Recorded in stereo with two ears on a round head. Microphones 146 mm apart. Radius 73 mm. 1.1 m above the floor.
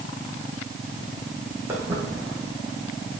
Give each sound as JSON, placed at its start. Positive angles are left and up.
{"t": 1.7, "sound": "footsteps", "side_deg": -15, "distance_m": 3.0}